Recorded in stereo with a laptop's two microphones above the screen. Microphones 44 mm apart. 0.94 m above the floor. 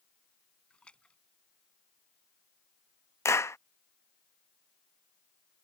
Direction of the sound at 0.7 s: 20° left (ahead or behind).